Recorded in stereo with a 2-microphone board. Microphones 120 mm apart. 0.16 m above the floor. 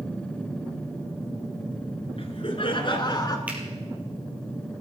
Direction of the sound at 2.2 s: 55° left (ahead or behind).